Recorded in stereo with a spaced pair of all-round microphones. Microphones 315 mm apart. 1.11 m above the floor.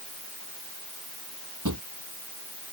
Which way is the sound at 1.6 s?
65° right (ahead or behind).